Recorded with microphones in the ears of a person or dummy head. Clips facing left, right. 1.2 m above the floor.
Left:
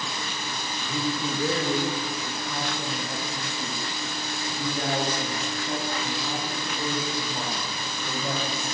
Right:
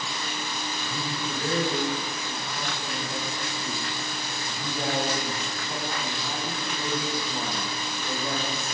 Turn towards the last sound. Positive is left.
turn(degrees=15)  # may be behind; listen again after turning